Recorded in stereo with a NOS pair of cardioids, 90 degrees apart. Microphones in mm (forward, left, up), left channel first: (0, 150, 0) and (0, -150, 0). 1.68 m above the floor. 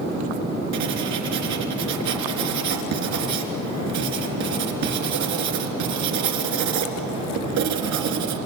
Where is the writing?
70° right, 3 m.